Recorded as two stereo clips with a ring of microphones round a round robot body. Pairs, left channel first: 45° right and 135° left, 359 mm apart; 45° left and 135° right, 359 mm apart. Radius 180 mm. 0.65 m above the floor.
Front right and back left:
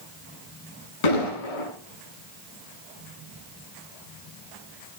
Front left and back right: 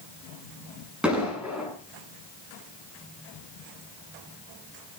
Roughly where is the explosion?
Ahead right.